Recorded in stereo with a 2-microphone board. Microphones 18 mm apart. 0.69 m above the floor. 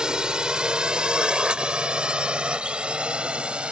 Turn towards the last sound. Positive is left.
turn(degrees=-65)  # may be behind; listen again after turning